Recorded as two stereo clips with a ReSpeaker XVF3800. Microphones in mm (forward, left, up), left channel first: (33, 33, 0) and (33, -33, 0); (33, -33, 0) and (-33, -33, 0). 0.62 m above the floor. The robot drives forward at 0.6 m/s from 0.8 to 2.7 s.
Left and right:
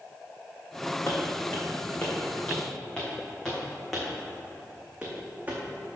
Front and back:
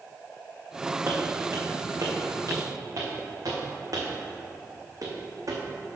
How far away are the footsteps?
About 2 m.